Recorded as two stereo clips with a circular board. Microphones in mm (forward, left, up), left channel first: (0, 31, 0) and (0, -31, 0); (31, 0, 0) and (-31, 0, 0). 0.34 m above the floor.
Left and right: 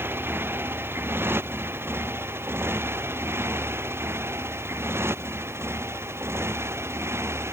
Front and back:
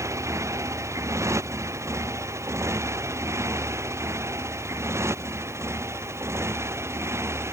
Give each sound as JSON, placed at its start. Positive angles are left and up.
{"t": 0.0, "sound": "a motorcycle", "azimuth_deg": -145}